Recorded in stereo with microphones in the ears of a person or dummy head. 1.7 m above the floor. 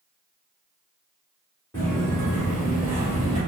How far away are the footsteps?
About 1.7 m.